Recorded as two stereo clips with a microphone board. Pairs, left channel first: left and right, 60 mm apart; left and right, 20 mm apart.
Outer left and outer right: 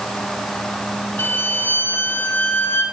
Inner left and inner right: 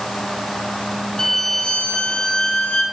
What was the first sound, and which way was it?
A violin, 35° left (ahead or behind).